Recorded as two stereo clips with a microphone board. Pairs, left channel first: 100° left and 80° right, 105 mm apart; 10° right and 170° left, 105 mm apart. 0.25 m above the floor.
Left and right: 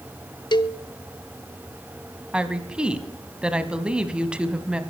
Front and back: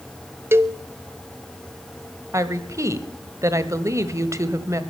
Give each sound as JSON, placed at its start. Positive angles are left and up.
{"t": 0.5, "sound": "a cowbell", "azimuth_deg": 110, "distance_m": 0.6}
{"t": 2.3, "sound": "a woman speaking", "azimuth_deg": -150, "distance_m": 1.2}